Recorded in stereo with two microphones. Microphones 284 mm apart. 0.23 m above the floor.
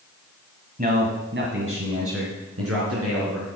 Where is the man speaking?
30° right (ahead or behind), 1.5 m; by 3.5 s 60° right (ahead or behind), 4 m.